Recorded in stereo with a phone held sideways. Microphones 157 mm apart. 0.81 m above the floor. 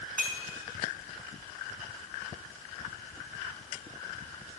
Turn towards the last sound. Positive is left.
turn(degrees=-10)  # may be behind; listen again after turning